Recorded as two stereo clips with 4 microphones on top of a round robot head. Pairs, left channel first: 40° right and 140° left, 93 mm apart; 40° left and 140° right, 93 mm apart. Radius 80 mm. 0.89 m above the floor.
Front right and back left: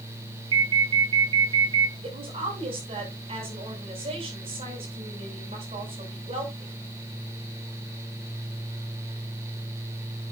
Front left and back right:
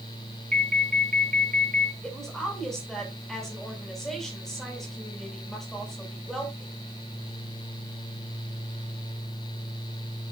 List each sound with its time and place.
0.5 s an alarm: 115° left, 2 m
2.0 s a woman speaking: 125° left, 6.5 m